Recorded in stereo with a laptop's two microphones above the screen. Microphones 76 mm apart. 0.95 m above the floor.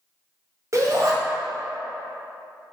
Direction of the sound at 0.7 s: 45° right (ahead or behind).